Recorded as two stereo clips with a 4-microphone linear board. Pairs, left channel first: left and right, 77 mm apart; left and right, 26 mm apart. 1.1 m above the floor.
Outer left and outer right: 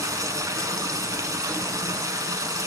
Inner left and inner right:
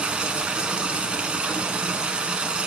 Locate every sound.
0.0 s running water: 50° right (ahead or behind), 1.5 m